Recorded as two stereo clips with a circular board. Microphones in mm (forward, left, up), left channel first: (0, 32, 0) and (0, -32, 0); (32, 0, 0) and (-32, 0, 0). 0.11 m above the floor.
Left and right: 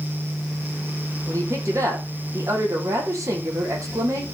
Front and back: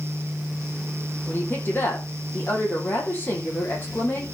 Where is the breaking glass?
No breaking glass in this recording.